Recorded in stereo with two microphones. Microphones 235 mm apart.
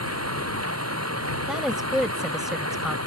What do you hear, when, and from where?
0.0 s running water: 80° right
1.5 s a woman speaking: centre (ahead or behind)